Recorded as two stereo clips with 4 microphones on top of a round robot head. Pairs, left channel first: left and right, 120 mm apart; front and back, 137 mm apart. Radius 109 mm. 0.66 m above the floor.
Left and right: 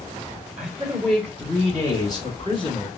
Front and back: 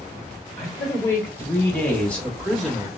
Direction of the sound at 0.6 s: 25° right.